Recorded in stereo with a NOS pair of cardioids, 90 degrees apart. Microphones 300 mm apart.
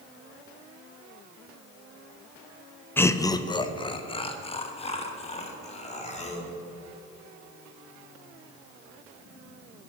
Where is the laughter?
5° left, 0.5 m; by 6.5 s 20° left, 3 m.